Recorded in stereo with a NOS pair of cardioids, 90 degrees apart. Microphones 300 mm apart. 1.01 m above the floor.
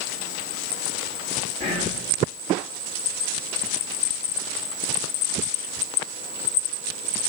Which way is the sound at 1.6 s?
55° left.